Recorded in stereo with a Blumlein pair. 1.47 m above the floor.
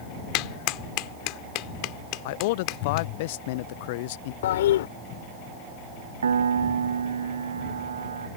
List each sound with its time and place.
0.3 s a clap: 40° left
2.2 s a man speaking: 50° left
4.4 s a toilet flushing: 60° left
6.2 s a piano: 70° right